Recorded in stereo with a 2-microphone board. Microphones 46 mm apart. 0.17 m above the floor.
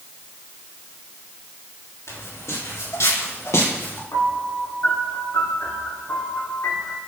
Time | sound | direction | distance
2.1 | footsteps | 90° left | 5.5 m
4.1 | a piano | 85° left | 6 m